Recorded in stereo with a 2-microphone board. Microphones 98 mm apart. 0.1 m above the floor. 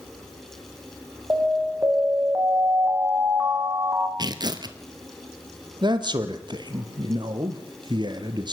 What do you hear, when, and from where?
1.3 s an alarm: 25° right (ahead or behind), 7.5 m
4.2 s tearing paper: 45° right (ahead or behind), 2 m
5.8 s a man speaking: 50° right (ahead or behind), 2.5 m